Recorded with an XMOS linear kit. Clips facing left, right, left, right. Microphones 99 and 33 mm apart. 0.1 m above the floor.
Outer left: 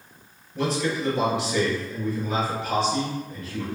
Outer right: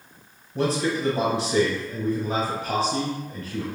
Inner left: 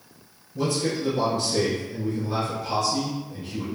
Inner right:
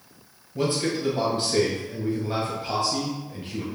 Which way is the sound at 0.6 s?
35° right (ahead or behind).